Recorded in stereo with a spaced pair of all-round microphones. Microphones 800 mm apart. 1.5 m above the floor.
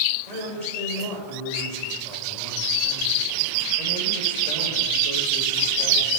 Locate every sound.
0.3 s a man speaking: 50° right (ahead or behind), 7 m